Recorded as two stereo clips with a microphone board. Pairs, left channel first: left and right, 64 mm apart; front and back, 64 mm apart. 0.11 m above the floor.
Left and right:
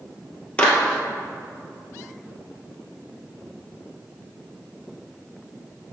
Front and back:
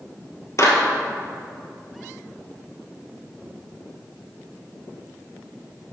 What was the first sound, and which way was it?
A clap, 20° left.